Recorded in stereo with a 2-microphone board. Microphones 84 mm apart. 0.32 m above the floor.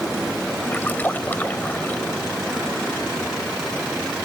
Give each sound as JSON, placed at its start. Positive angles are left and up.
{"t": 0.7, "sound": "a splash", "side_deg": 20}